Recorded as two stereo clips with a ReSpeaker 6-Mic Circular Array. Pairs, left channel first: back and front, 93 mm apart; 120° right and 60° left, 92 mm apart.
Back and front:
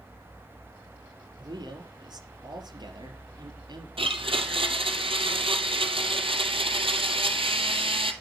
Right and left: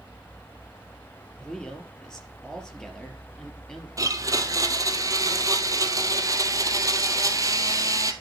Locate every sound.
1.4 s a man speaking: 35° right, 3.5 m
4.0 s a blender: 10° left, 1.5 m